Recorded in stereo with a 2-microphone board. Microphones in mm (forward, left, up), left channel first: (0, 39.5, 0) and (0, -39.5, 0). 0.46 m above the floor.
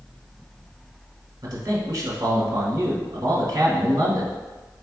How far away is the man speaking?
About 1.5 m.